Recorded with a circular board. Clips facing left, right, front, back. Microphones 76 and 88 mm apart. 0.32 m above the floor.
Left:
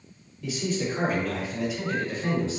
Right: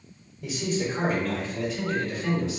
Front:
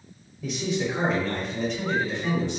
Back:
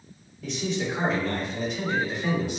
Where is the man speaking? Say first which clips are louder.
Even, front 2 dB; 55° right, 1.1 m; by 2.6 s 110° left, 1.3 m.